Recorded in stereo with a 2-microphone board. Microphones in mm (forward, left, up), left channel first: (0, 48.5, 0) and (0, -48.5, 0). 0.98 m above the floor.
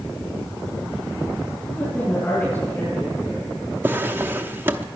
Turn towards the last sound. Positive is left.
turn(degrees=-25)  # may be behind; listen again after turning